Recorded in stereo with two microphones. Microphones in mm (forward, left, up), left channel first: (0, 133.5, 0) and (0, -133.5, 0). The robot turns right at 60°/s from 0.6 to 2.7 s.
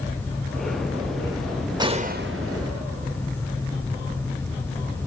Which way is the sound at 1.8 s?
165° right.